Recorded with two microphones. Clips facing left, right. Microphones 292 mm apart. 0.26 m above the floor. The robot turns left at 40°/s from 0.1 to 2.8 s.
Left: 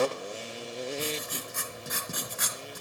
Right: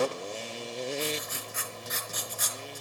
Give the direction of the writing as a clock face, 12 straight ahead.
7 o'clock.